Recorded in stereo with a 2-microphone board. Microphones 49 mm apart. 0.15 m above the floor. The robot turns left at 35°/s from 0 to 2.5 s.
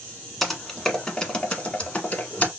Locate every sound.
0.4 s typing on a keyboard: centre (ahead or behind), 1.1 m; by 2.5 s 30° left (ahead or behind), 1.1 m